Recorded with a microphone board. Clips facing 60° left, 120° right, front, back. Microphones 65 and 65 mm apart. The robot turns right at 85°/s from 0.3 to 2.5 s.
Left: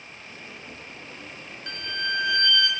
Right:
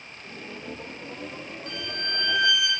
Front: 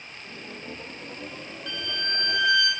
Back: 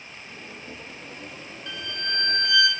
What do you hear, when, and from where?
1.7 s a violin: 90° left, 0.7 m; by 2.7 s 160° left, 0.7 m